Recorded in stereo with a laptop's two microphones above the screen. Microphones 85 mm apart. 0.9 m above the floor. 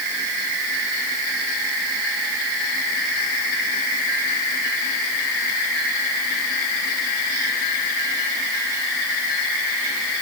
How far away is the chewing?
No chewing in this recording.